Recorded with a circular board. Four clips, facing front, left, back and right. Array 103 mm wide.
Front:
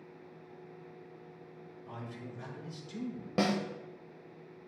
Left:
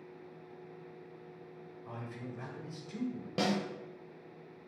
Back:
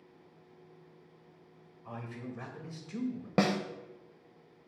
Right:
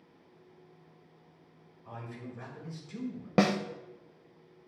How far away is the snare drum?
About 0.7 m.